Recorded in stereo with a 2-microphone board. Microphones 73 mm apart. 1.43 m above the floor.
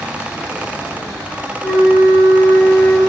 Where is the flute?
25° left (ahead or behind), 1.0 m.